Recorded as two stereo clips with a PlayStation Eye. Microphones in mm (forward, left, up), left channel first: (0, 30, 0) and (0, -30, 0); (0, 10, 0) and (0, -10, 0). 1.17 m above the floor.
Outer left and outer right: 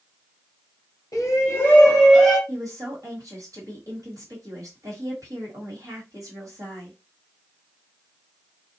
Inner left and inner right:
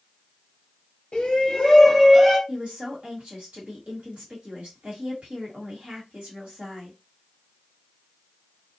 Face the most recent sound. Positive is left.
turn(degrees=-70)  # may be behind; listen again after turning